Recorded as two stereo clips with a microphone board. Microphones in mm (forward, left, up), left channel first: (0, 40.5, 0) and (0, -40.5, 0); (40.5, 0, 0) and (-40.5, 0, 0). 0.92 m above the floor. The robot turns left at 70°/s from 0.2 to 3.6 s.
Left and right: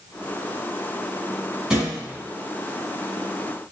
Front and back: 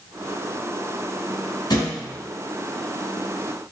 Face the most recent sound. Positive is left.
turn(degrees=-145)